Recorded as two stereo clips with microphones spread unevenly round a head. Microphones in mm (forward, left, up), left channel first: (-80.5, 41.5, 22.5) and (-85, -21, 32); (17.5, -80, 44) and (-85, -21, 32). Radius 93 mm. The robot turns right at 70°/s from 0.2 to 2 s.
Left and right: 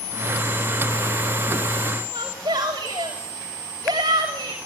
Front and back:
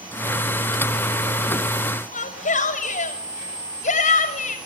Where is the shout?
40° right, 7 m.